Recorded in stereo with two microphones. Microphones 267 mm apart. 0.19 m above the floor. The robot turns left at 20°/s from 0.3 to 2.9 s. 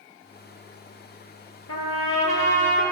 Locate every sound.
1.7 s a trumpet: 65° left (ahead or behind), 0.6 m; by 2.8 s 40° left (ahead or behind), 0.6 m